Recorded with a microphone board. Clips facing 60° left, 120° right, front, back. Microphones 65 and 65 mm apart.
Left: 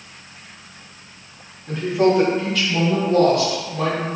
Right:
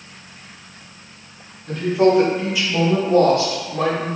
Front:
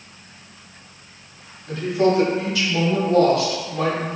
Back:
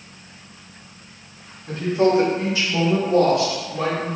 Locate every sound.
1.7 s a woman speaking: 140° left, 1.2 m; by 4.1 s 95° right, 1.1 m